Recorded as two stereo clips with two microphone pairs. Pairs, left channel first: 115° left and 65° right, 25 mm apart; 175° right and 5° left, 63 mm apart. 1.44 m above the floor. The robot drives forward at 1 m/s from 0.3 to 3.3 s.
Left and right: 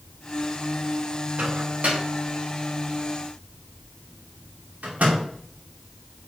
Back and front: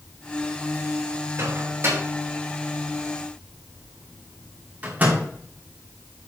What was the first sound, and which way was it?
A microwave, 35° right.